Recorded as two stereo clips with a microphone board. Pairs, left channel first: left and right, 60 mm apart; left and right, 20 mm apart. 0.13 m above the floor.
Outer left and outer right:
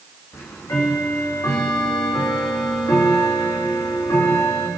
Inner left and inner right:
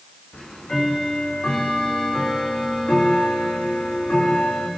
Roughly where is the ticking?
Left.